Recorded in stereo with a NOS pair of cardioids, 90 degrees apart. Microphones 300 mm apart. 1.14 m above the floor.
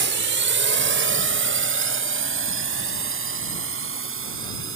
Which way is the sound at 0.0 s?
40° right.